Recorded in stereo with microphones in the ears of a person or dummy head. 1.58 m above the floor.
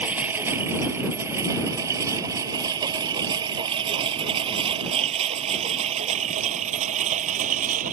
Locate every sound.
0.0 s a lawn mower: 10° right (ahead or behind); by 7.9 s 45° right (ahead or behind)